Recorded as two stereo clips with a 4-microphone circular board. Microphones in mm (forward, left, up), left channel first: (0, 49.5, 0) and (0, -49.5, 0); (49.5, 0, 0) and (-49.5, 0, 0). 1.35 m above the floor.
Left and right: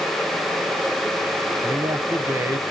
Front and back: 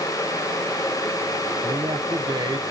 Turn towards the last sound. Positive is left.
turn(degrees=-150)